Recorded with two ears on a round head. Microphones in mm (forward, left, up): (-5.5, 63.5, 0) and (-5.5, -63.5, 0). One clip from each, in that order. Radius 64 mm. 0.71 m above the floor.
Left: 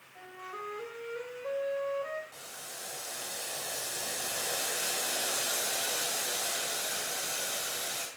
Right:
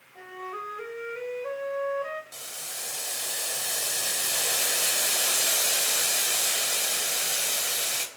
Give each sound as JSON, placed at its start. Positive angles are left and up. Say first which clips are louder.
{"t": 0.1, "sound": "a flute", "louder": "right 6 dB", "side_deg": -65, "distance_m": 3.0}
{"t": 2.3, "sound": "boiling", "louder": "right 6 dB", "side_deg": -55, "distance_m": 3.0}